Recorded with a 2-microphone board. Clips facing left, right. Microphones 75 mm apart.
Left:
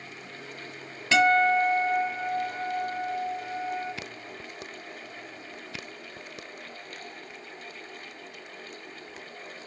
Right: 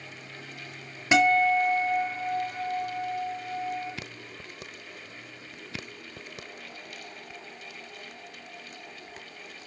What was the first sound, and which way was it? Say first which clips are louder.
A guitar: even; 20° right (ahead or behind).